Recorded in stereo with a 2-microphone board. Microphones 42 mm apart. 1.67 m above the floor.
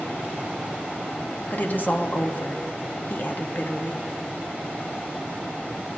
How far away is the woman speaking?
About 0.8 m.